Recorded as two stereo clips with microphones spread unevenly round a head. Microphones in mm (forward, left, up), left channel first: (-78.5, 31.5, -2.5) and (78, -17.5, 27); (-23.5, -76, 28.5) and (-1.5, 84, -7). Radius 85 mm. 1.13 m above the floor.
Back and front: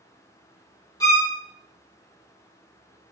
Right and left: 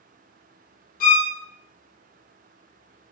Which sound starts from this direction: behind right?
A violin, at 1.0 s.